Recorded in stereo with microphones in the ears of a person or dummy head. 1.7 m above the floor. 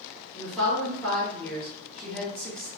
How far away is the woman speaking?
About 1.6 m.